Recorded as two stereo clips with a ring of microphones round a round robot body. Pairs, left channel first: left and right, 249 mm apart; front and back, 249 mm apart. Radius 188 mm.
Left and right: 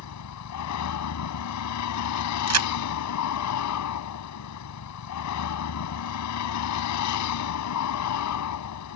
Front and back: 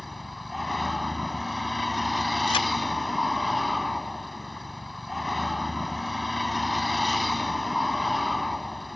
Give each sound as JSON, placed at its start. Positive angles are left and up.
{"t": 0.0, "sound": "a vehicle", "azimuth_deg": 90}
{"t": 2.5, "sound": "a crack", "azimuth_deg": -75}